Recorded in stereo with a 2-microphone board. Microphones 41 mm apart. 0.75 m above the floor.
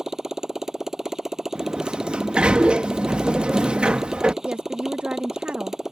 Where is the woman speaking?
35° right (ahead or behind).